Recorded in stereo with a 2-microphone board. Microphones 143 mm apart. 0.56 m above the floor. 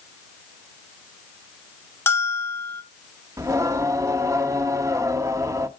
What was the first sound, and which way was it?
A bell, 15° left (ahead or behind).